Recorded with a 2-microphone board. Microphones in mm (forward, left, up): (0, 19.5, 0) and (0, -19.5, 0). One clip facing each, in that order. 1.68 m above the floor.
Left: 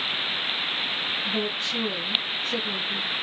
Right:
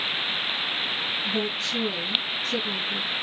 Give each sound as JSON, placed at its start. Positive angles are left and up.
{"t": 1.2, "sound": "a woman speaking", "side_deg": 15, "distance_m": 1.7}